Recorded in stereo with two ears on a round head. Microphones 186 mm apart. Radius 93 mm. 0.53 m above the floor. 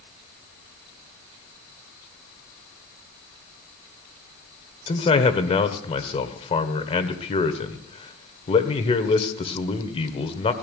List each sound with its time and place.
4.9 s a man speaking: 30° left (ahead or behind), 1.4 m